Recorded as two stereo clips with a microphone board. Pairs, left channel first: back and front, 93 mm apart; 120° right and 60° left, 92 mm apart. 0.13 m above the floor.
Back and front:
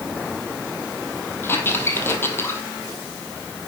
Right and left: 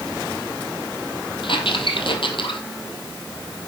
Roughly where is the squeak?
Behind right.